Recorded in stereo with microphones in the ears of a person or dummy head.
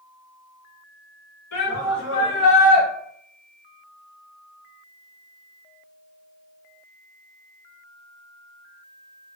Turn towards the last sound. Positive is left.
turn(degrees=60)  # may be behind; listen again after turning